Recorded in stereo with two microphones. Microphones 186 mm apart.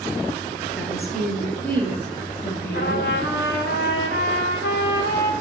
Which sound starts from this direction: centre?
A woman speaking, at 0.8 s.